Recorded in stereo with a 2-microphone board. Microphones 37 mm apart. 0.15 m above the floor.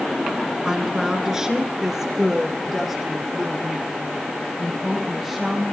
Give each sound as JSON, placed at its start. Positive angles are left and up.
{"t": 0.7, "sound": "a woman speaking", "side_deg": -20, "distance_m": 1.6}